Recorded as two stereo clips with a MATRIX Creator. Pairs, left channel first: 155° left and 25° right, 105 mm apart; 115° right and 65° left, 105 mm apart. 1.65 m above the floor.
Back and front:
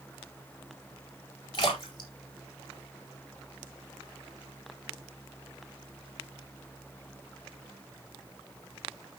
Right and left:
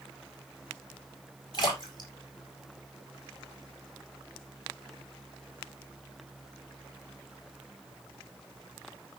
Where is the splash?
160° right, 4.5 m.